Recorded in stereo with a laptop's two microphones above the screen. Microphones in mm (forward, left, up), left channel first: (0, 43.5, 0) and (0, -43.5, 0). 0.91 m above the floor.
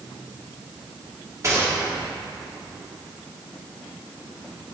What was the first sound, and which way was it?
A gunshot, 35° right (ahead or behind).